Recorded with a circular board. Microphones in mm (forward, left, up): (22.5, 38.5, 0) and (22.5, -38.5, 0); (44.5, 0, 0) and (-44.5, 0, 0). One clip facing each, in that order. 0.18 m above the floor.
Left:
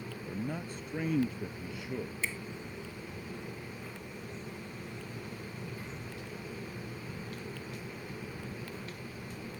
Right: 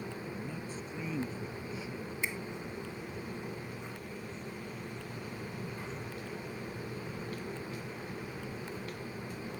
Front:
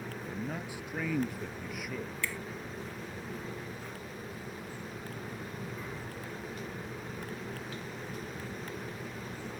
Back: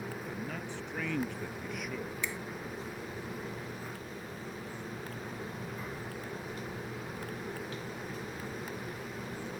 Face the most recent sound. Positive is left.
turn(degrees=-140)